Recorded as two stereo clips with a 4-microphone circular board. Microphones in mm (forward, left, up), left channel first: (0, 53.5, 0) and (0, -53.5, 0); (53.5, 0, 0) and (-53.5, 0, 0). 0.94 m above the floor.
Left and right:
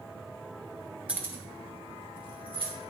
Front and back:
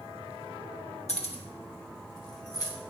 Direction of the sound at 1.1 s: 10° right.